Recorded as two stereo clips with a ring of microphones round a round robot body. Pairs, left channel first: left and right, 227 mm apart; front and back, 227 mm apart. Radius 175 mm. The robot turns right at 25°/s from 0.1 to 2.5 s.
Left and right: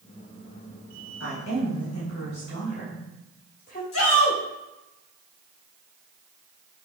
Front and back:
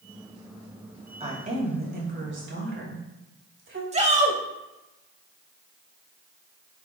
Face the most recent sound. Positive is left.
turn(degrees=120)